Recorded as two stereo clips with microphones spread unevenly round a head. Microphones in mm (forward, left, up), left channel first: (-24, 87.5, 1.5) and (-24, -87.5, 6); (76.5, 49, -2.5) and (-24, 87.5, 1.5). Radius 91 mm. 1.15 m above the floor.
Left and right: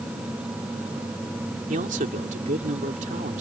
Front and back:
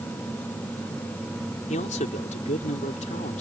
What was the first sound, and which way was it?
A man speaking, 40° right.